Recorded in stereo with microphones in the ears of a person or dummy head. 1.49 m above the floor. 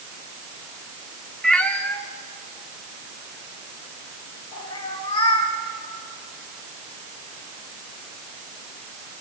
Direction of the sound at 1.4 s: 10° left (ahead or behind).